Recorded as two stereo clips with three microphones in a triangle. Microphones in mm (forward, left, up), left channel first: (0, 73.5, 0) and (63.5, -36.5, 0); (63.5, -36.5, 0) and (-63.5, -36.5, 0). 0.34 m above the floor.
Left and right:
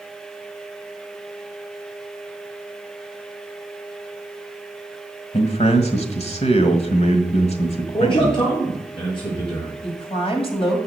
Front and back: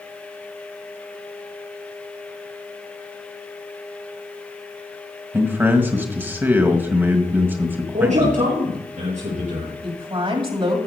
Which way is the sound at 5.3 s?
110° left.